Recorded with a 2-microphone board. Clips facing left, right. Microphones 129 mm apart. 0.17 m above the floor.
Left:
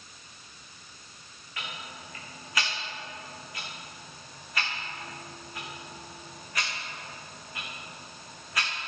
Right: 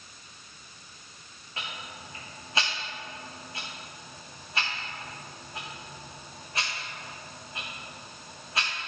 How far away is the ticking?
About 3.5 m.